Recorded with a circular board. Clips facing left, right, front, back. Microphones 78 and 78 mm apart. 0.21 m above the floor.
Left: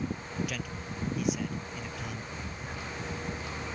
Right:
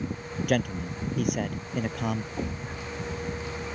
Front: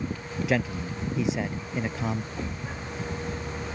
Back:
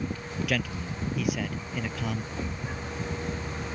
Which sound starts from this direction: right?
A thud, at 2.4 s.